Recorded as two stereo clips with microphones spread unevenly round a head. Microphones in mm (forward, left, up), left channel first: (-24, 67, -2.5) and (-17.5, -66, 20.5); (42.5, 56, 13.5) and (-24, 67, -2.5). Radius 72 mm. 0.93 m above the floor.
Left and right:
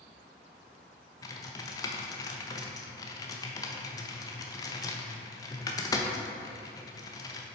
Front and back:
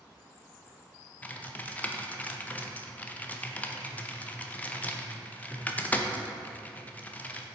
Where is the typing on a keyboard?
60° left, 0.7 m.